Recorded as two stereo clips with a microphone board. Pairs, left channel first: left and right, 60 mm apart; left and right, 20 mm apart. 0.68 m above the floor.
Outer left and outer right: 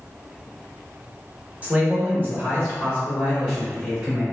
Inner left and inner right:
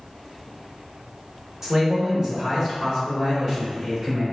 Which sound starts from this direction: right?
A man speaking, at 1.6 s.